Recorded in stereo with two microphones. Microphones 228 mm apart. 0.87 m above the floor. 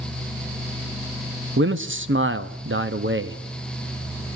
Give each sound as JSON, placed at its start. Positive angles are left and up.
{"t": 1.6, "sound": "a man speaking", "side_deg": -60, "distance_m": 1.0}